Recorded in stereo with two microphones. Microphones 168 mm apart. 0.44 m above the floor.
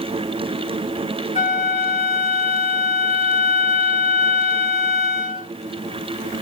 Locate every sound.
1.4 s a flute: 50° left (ahead or behind), 2.5 m